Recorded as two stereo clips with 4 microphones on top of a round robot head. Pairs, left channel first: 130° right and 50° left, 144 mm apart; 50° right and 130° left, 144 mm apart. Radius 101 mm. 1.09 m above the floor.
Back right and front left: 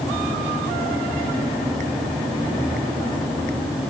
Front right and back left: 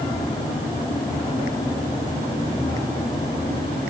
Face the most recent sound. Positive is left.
No sound to turn to.